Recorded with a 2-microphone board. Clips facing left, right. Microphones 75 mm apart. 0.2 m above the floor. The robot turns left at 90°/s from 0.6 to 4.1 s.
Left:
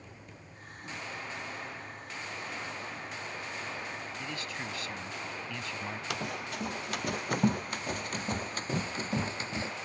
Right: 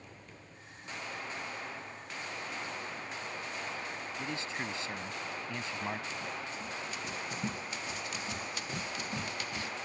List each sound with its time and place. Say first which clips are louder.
4.2 s a man speaking: right 3 dB; 25° right (ahead or behind)
6.1 s running footsteps: left 3 dB; 80° left; by 9.7 s 30° left (ahead or behind)